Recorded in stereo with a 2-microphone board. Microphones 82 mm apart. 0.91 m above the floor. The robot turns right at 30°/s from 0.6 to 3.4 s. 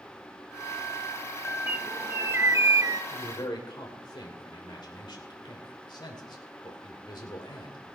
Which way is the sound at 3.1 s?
75° left (ahead or behind).